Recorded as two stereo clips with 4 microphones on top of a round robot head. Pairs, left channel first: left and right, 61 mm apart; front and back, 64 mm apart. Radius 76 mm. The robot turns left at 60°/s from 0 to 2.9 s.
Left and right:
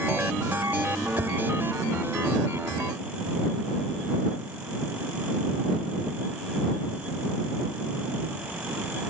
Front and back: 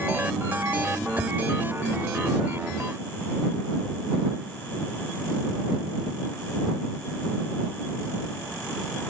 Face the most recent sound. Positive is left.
turn(degrees=145)